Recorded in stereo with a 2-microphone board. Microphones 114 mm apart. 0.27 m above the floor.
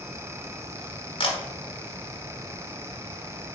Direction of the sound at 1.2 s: 50° left (ahead or behind).